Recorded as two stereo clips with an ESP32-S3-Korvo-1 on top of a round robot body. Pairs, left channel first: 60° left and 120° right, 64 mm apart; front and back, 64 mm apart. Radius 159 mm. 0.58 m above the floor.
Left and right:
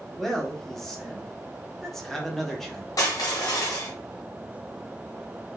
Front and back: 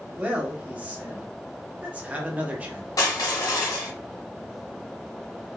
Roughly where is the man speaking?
Behind left.